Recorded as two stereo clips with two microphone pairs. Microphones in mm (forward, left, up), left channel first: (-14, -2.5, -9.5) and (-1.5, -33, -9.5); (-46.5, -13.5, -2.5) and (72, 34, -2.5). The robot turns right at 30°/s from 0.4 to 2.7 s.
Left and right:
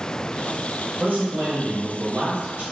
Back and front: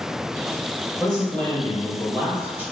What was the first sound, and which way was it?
A man speaking, 100° right.